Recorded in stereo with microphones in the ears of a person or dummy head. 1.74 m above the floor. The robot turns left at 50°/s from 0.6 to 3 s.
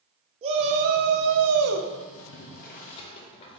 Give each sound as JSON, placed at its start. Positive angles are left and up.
{"t": 0.4, "sound": "a shout", "azimuth_deg": -30, "distance_m": 0.7}
{"t": 2.2, "sound": "boiling", "side_deg": 75, "distance_m": 0.7}